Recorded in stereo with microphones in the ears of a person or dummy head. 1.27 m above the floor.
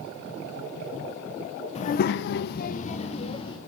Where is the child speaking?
30° left (ahead or behind), 0.7 m; by 3.6 s 35° left (ahead or behind), 1.6 m.